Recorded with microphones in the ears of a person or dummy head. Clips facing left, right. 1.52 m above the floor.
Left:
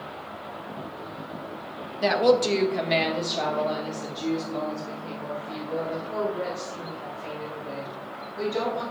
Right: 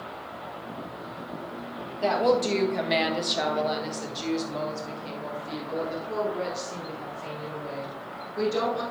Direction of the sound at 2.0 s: 35° left (ahead or behind).